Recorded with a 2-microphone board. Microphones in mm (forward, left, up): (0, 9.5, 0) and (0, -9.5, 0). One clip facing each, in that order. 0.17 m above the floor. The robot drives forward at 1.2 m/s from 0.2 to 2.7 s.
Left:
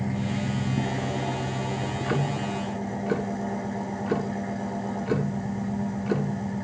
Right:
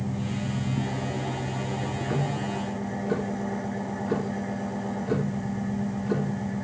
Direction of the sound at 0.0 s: 70° left (ahead or behind).